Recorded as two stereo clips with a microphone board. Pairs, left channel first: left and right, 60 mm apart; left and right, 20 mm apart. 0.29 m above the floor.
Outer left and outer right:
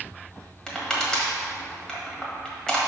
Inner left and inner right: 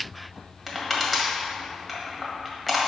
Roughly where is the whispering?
I don't hear whispering.